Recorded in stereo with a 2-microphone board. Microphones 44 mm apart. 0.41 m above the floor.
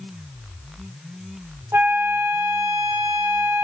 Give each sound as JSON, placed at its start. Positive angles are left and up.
{"t": 1.7, "sound": "a flute", "side_deg": -75, "distance_m": 0.9}